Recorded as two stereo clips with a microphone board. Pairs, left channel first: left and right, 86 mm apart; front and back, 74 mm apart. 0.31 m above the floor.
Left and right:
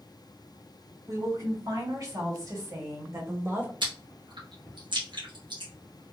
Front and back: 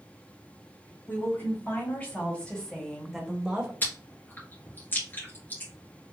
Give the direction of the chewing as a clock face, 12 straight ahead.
2 o'clock.